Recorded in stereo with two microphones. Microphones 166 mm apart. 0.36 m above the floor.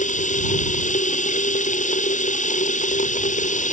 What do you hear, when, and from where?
0.0 s running water: 50° left (ahead or behind)